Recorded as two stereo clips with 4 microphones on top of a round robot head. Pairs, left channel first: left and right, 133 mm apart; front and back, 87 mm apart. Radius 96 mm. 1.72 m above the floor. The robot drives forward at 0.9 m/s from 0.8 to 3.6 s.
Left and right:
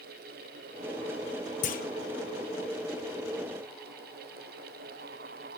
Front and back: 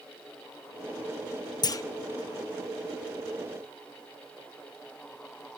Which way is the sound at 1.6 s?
40° left.